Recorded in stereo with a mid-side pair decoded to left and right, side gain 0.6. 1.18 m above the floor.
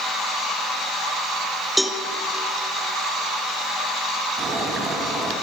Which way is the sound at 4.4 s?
30° right.